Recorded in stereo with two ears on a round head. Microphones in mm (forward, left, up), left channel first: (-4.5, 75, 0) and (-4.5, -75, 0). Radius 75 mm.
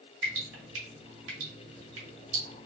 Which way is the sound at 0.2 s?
85° right.